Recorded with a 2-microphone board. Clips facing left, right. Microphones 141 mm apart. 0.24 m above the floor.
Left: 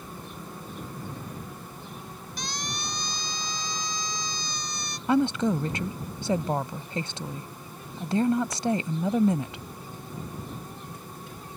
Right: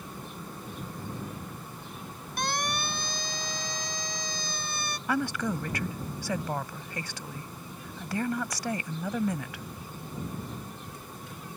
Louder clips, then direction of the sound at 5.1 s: Left 7 dB; 25° left (ahead or behind).